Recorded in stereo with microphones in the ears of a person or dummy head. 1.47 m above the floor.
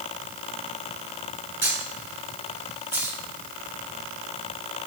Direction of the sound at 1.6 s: 10° right (ahead or behind).